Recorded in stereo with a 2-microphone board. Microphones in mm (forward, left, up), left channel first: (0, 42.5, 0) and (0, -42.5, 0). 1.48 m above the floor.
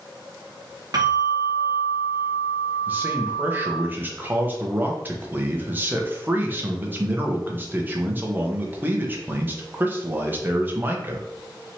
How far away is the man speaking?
About 0.8 m.